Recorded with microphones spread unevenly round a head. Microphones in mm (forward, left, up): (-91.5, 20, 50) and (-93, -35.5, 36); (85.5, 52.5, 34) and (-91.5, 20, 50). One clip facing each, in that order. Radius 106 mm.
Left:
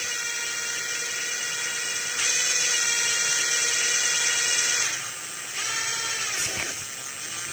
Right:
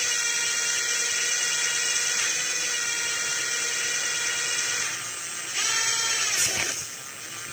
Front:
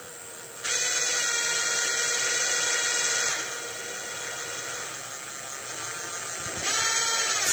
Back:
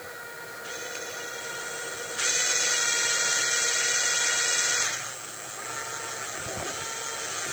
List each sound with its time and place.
Only background noise.